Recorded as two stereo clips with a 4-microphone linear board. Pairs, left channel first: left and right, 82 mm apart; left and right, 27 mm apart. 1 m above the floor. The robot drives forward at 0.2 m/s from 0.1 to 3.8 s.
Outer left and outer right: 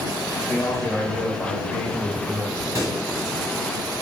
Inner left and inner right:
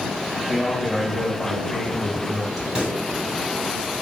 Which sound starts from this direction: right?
A pop, at 2.8 s.